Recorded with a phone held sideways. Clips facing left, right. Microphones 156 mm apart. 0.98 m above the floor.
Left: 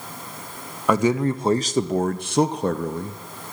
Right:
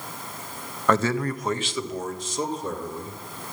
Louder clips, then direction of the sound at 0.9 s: Left 3 dB; 10° left (ahead or behind).